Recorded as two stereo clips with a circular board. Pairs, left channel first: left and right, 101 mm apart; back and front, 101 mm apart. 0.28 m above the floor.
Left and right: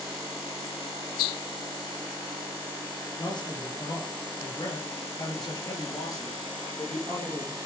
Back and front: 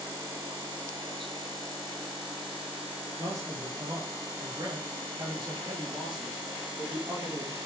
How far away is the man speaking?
About 6.5 m.